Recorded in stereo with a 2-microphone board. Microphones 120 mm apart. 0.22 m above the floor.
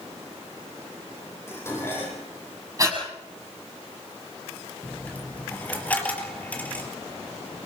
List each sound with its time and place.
1.5 s dishes clattering: 20° left (ahead or behind), 6.5 m
2.8 s breathing: 30° right (ahead or behind), 6.5 m
4.8 s a dropped coin: 15° left (ahead or behind), 2.5 m